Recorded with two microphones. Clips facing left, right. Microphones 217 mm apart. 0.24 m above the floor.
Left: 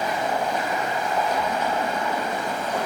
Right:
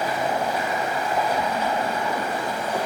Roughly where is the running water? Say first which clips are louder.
Right 1 dB; centre.